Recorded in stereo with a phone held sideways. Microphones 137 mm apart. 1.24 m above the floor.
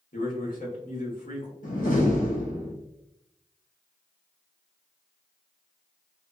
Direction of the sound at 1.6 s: 75° left (ahead or behind).